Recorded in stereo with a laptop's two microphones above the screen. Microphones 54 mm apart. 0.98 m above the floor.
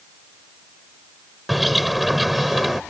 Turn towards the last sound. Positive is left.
turn(degrees=0)  # may be behind; listen again after turning